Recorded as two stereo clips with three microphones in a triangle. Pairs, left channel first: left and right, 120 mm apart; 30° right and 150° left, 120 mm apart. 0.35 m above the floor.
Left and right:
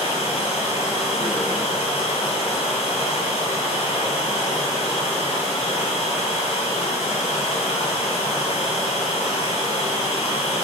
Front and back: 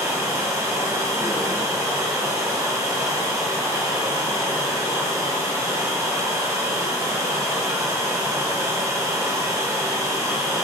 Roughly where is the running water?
Left.